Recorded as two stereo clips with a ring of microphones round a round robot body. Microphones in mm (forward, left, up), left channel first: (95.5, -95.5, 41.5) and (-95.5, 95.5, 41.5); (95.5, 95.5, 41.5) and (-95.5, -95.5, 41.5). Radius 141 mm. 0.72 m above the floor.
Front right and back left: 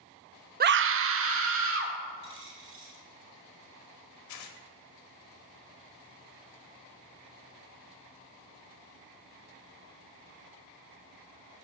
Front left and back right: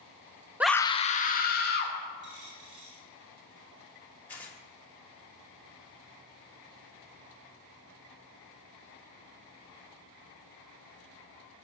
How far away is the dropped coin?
About 4 m.